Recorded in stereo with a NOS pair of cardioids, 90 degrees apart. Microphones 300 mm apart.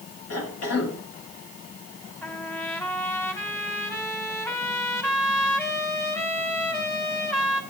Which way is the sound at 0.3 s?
55° left.